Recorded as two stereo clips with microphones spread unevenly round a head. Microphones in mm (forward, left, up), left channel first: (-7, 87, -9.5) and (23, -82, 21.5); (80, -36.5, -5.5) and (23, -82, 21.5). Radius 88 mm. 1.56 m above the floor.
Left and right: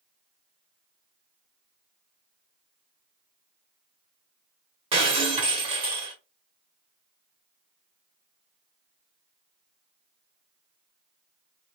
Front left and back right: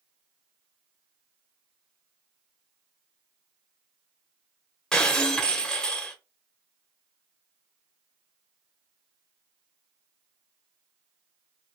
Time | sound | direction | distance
4.9 | breaking glass | 65° right | 1.5 m